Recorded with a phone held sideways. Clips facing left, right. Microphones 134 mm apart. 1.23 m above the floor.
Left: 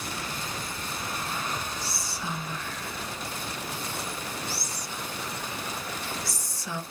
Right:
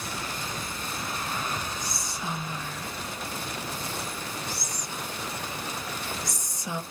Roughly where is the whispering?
Centre.